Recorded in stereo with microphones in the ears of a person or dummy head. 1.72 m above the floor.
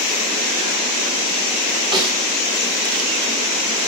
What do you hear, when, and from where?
1.9 s a snare drum: 30° right (ahead or behind), 6 m